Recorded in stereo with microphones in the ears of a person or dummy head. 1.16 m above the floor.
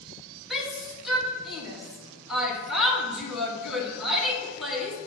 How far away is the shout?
About 2.0 m.